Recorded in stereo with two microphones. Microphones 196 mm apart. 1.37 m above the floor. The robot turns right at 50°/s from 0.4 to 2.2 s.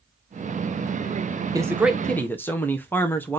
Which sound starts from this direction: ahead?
A man speaking, at 1.5 s.